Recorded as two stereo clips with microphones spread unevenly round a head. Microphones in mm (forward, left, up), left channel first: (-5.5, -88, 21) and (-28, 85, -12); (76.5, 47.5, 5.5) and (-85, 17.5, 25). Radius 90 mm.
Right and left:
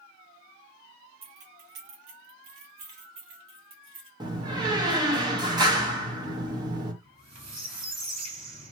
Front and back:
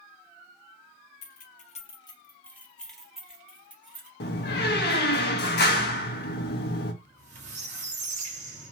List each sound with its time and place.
1.2 s keys jangling: 35° left, 0.6 m; by 4.1 s 110° left, 1.7 m
4.2 s a door slam: 30° left, 0.6 m
7.0 s a squeak: 160° left, 1.8 m